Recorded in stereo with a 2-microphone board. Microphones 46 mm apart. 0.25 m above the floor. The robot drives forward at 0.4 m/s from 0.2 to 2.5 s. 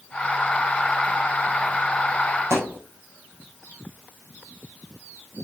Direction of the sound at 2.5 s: 70° right (ahead or behind).